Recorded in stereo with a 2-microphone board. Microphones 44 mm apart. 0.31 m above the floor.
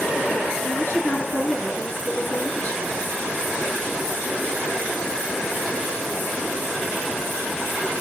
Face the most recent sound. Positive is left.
turn(degrees=55)  # may be behind; listen again after turning